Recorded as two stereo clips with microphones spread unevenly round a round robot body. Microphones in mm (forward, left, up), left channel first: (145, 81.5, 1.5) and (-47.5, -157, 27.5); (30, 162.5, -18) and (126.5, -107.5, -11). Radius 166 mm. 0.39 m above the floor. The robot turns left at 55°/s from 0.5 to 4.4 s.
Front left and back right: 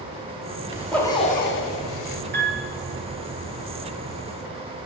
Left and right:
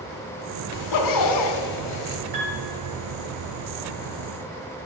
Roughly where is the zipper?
Behind left.